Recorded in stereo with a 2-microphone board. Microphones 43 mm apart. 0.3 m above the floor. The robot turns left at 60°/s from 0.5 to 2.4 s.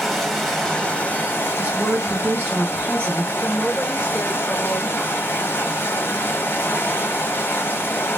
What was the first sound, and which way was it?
Running water, 175° left.